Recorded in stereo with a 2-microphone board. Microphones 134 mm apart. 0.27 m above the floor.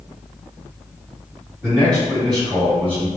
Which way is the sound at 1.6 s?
15° right (ahead or behind).